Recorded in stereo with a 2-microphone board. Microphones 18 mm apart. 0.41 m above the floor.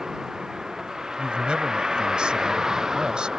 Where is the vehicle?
35° right (ahead or behind).